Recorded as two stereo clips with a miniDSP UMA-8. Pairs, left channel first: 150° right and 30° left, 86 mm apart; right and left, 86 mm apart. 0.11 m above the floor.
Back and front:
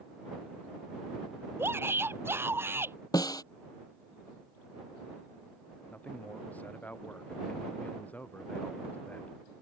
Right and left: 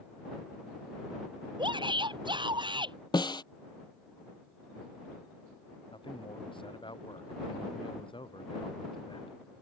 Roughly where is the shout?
Left.